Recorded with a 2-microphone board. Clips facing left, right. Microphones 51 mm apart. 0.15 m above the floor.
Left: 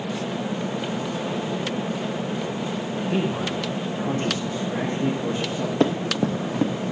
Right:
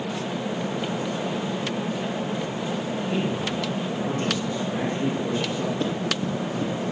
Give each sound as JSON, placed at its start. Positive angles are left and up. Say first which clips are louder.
{"t": 3.1, "sound": "a man speaking", "louder": "left 3 dB", "side_deg": 20, "distance_m": 7.0}
{"t": 5.8, "sound": "running footsteps", "louder": "left 4 dB", "side_deg": 90, "distance_m": 1.8}